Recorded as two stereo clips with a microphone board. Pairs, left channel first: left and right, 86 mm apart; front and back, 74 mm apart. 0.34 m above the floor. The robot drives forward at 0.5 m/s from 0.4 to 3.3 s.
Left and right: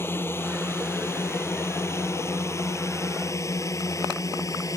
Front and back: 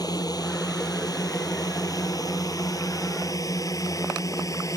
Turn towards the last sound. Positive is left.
turn(degrees=40)